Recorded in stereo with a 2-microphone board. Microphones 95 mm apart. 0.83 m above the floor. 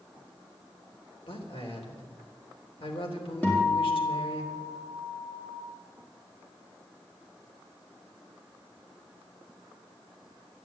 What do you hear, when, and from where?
1.3 s a man speaking: 75° left (ahead or behind), 3.5 m
3.4 s a guitar: 15° left (ahead or behind), 4 m